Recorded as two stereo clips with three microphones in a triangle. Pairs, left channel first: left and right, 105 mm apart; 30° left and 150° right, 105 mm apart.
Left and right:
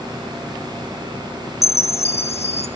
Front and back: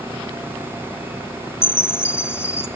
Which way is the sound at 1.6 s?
95° left.